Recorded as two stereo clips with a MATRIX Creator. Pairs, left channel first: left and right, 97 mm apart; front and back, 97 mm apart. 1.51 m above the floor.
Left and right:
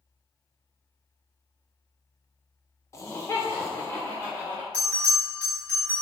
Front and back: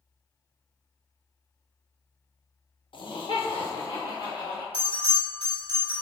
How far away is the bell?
About 1.6 m.